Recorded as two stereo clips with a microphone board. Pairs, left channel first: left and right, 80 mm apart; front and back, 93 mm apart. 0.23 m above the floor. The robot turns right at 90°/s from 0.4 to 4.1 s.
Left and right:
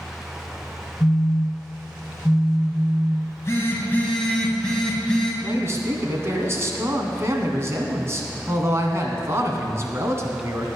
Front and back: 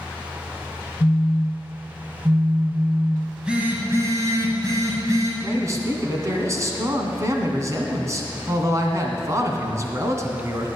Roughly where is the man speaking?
Behind right.